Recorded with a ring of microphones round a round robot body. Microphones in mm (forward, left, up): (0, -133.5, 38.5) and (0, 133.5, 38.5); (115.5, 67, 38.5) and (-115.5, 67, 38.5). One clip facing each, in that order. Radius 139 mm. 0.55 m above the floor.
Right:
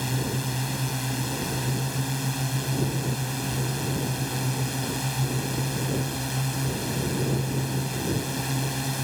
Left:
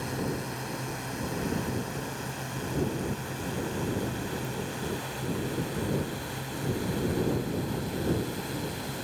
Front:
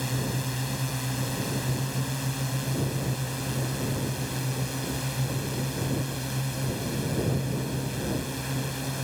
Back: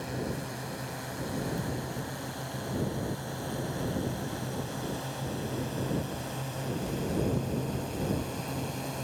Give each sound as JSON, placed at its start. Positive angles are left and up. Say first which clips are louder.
{"t": 0.0, "sound": "a drone", "louder": "right 2 dB, front 3 dB", "azimuth_deg": -55}